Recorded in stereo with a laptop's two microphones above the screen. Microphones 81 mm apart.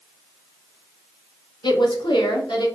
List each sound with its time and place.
1.6 s a woman speaking: 70° left (ahead or behind), 0.6 m; by 2.7 s 80° left, 1.0 m